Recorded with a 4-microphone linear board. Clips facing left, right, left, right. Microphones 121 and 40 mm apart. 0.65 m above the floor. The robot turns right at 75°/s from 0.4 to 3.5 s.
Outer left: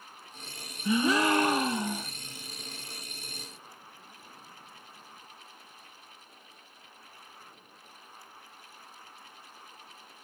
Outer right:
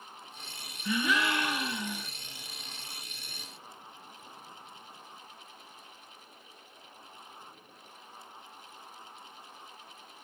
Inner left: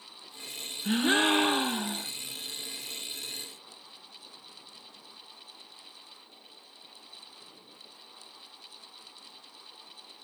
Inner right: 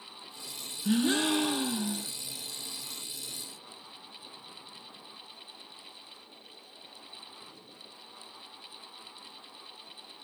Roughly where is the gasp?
Ahead left.